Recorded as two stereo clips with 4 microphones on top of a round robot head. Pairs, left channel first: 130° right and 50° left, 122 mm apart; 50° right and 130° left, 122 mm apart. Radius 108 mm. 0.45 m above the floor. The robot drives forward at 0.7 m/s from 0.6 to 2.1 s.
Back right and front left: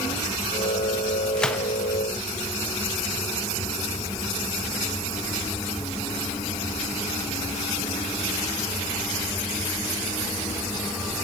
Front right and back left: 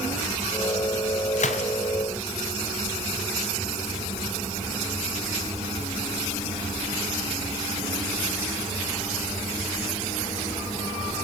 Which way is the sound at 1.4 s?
45° right.